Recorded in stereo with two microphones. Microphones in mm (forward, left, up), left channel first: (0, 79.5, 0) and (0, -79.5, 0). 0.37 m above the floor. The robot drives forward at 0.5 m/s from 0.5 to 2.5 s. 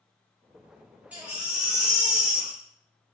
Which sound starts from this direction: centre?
A baby crying, at 1.1 s.